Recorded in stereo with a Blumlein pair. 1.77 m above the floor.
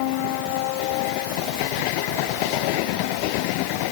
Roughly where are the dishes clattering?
No dishes clattering in this recording.